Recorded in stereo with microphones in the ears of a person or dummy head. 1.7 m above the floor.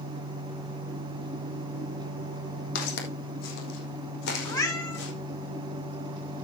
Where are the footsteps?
55° left (ahead or behind), 3.5 m; by 5.1 s 70° left (ahead or behind), 5.5 m.